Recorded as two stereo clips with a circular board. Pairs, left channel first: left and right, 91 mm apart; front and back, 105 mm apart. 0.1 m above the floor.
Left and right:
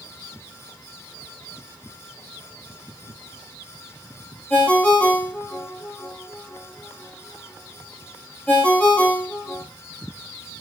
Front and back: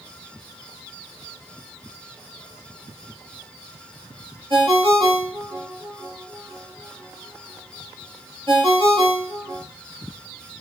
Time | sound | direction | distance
4.5 | a ringtone | 155° left | 0.8 m